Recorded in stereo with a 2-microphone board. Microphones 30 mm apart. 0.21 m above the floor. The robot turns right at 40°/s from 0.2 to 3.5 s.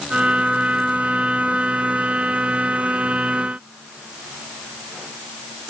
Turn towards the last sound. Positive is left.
No sound to turn to.